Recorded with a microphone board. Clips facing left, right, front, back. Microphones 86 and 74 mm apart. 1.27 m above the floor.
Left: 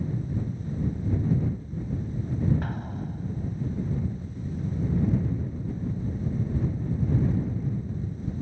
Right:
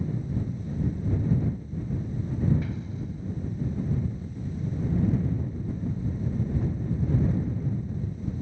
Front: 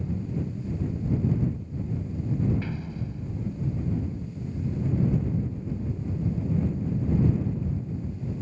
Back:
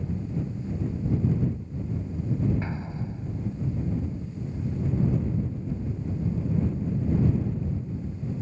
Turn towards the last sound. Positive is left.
turn(degrees=120)